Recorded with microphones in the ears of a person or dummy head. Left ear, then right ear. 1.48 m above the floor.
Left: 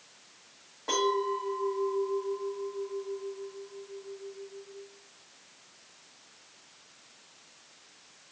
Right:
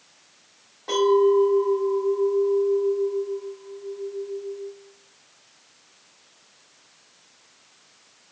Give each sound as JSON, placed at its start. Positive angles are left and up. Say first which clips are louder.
{"t": 0.9, "sound": "a clink", "louder": "right 10 dB", "side_deg": 0, "distance_m": 1.5}